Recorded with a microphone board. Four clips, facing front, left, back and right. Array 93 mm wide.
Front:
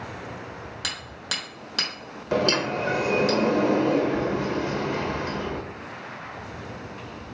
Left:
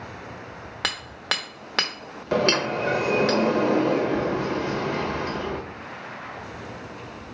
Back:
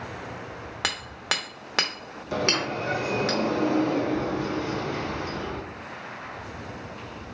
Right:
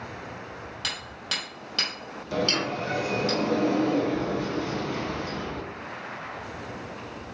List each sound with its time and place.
0.8 s hammering: 135° left, 1.0 m
2.3 s a sliding door: 55° left, 0.8 m